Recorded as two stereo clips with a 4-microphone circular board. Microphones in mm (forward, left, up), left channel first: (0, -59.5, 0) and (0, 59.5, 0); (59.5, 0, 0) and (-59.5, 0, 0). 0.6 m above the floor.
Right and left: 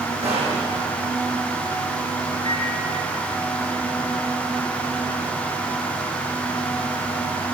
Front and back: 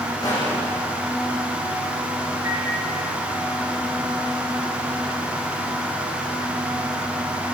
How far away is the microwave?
About 8 m.